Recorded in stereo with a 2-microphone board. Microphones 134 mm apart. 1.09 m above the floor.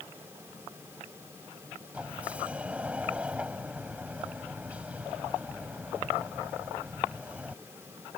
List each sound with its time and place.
1.9 s a sliding door: 10° right (ahead or behind)